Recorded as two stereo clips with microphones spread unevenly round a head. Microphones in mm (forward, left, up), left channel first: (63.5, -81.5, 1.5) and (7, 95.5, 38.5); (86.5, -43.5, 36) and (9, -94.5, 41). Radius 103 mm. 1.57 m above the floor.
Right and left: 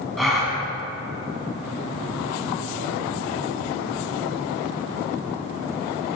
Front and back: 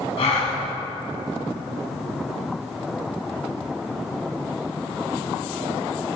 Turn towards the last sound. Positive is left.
turn(degrees=25)